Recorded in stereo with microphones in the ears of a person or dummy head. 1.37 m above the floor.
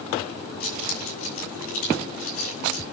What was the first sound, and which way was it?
Keys jangling, 50° left (ahead or behind).